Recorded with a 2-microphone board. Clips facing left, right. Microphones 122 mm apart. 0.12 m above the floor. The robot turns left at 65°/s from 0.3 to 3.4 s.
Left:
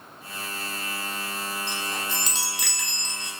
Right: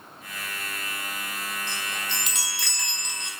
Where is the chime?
80° left, 0.7 m; by 3.3 s 25° right, 0.7 m.